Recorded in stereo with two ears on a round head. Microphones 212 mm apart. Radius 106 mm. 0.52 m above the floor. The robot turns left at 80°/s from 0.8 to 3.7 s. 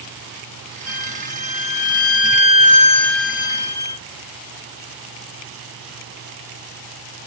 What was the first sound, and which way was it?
A violin, 175° right.